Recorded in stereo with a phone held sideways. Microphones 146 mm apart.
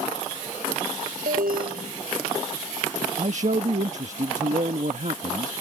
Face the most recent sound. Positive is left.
turn(degrees=-55)  # may be behind; listen again after turning